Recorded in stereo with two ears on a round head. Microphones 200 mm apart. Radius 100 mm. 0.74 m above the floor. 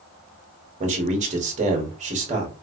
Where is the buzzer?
No buzzer in this recording.